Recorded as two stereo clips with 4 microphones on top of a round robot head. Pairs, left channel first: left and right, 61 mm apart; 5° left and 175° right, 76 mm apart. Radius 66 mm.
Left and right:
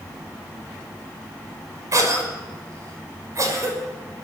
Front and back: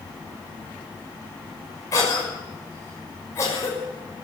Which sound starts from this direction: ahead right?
A cough, at 1.9 s.